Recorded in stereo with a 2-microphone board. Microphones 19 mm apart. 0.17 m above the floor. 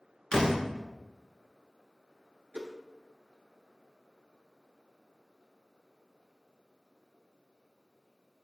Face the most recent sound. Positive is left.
turn(degrees=-60)  # may be behind; listen again after turning